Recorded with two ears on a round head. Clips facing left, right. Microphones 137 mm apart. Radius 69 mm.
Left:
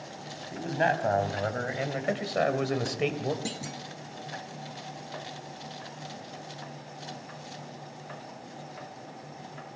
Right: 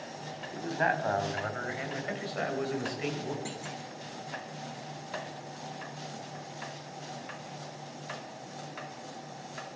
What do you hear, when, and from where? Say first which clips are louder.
0.5 s a man speaking: left 3 dB; 30° left (ahead or behind), 4.5 m; by 3.4 s 80° left, 3 m
3.5 s a clunk: left 2 dB; 45° left (ahead or behind), 1.5 m